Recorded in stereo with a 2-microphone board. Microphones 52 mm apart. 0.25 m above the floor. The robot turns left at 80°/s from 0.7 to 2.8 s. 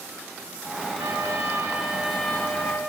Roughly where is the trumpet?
Right.